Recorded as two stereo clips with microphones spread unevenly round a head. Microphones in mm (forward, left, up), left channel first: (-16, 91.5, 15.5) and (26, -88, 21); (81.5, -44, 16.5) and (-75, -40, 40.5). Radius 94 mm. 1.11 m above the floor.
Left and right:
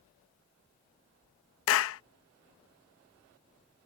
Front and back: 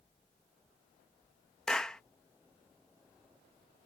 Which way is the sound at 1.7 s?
85° left.